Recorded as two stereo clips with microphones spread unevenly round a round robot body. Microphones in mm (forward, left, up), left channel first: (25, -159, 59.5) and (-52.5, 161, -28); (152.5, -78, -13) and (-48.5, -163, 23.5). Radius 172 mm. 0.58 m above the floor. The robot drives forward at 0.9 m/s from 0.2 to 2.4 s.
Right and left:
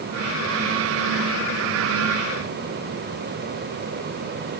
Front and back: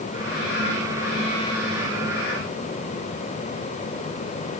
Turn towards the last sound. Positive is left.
No sound to turn to.